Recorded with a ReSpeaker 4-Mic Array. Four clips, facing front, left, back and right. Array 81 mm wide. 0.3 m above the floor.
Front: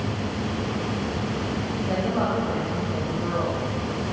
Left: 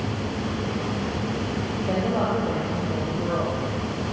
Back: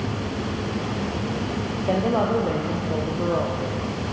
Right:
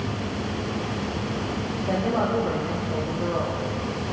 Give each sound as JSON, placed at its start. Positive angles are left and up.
{"t": 1.9, "sound": "a woman speaking", "azimuth_deg": 175, "distance_m": 8.0}